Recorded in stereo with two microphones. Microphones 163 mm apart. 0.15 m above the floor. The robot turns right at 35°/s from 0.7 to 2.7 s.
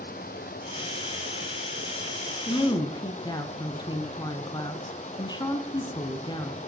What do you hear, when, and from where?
0.0 s running water: 60° left, 1.2 m; by 6.7 s 130° left, 1.2 m
2.5 s a woman speaking: 25° left (ahead or behind), 1.1 m